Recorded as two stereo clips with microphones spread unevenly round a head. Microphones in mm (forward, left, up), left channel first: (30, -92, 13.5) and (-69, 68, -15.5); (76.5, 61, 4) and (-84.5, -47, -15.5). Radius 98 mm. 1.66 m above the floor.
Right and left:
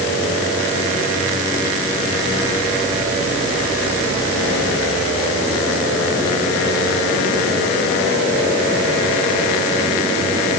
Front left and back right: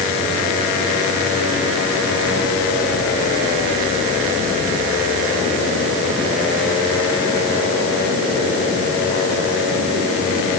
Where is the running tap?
No running tap in this recording.